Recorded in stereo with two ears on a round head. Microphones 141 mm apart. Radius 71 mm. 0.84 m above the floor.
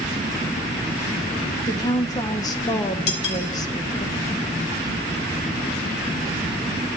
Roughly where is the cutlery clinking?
Left.